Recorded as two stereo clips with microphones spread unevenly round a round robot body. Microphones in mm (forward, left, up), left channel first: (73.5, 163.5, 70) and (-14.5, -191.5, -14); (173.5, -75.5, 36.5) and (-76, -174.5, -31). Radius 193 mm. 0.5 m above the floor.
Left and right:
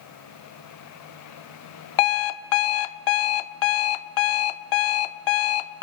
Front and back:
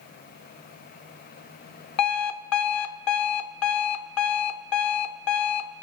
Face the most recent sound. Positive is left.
turn(degrees=65)